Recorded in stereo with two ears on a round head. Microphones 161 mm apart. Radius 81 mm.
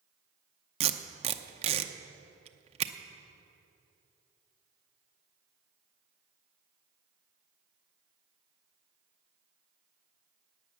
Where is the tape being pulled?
35° right (ahead or behind), 0.7 m.